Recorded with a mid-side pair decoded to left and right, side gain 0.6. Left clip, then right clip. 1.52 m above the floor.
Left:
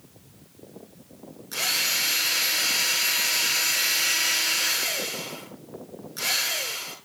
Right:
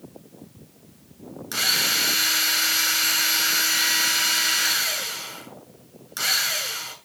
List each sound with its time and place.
1.5 s a drill: 45° right, 6.5 m